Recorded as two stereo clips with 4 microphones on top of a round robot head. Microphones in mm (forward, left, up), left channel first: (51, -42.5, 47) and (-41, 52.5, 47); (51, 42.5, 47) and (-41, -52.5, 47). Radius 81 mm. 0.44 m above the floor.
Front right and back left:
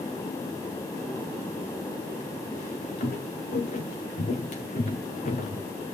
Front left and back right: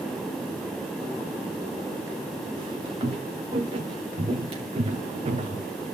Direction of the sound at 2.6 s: 75° right.